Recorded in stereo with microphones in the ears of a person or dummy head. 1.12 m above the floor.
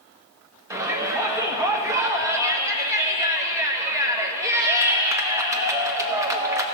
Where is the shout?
15° right (ahead or behind), 1.1 m.